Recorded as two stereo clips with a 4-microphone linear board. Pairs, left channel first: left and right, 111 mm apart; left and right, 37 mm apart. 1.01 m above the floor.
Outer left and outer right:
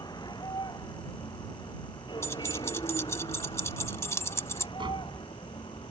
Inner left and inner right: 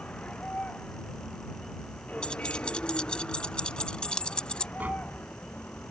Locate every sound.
0.0 s a vehicle: 40° left (ahead or behind); by 5.9 s 50° left (ahead or behind)
2.2 s keys jangling: 25° left (ahead or behind)
4.8 s tapping: 45° right (ahead or behind)